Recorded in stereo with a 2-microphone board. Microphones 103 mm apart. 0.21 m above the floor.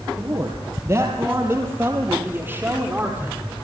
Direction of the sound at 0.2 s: 30° right (ahead or behind).